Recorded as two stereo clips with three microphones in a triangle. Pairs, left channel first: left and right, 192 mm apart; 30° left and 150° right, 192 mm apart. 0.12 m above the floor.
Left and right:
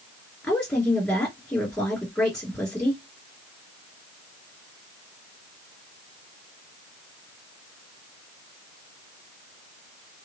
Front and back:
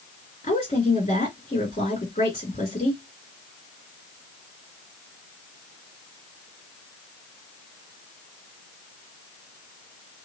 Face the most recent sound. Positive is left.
turn(degrees=10)